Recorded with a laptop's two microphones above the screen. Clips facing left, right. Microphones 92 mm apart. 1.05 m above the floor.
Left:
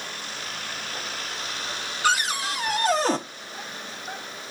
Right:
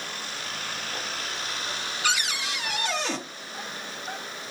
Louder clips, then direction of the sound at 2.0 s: Left 6 dB; 40° left (ahead or behind).